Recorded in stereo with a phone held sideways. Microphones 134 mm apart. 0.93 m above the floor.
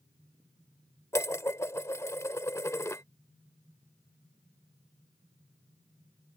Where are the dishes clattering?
20° left (ahead or behind).